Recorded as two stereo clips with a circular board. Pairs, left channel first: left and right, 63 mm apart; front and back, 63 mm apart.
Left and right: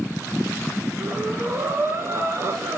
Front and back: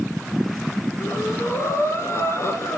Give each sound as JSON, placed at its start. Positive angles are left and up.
{"t": 1.0, "sound": "breathing", "azimuth_deg": -45, "distance_m": 1.0}